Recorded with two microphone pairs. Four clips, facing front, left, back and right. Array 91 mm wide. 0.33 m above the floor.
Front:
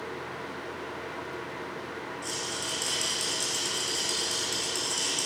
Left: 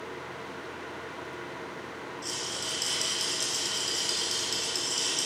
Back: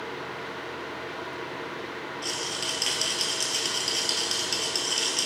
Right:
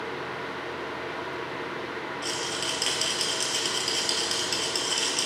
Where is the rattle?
125° right, 2 m.